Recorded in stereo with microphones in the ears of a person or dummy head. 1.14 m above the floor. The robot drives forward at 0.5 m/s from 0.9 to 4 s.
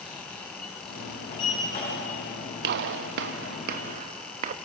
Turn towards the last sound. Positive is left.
turn(degrees=-45)  # may be behind; listen again after turning